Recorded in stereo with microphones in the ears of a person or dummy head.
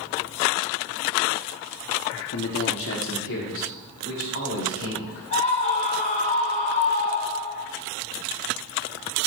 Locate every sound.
2.3 s a man speaking: 80° left, 1.0 m; by 5.2 s 75° left (ahead or behind), 3 m
5.3 s a scream: 35° left (ahead or behind), 0.8 m